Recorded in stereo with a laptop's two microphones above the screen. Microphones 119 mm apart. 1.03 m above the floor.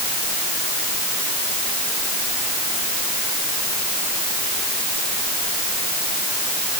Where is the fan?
I don't hear a fan.